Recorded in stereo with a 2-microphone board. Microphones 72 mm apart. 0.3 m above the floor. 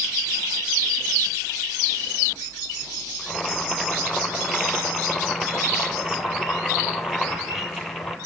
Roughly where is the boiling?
Centre.